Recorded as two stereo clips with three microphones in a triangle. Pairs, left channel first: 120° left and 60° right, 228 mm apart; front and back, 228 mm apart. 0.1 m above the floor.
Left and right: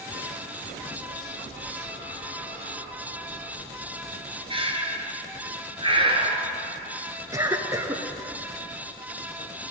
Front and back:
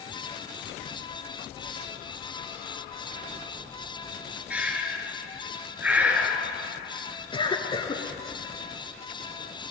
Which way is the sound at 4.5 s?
100° right.